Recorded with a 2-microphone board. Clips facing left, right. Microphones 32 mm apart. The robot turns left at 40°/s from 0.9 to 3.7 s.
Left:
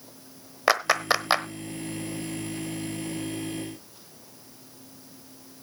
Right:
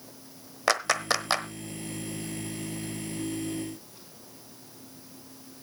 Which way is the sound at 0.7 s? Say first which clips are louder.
Left 3 dB; 15° left (ahead or behind).